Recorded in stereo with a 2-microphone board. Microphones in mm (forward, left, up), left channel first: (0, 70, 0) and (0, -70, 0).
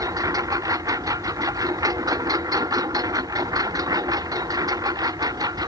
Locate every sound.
0.0 s a lawn mower: 25° right (ahead or behind); by 5.7 s 30° right (ahead or behind)